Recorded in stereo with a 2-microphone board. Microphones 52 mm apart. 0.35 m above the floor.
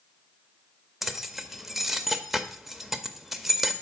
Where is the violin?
I don't hear a violin.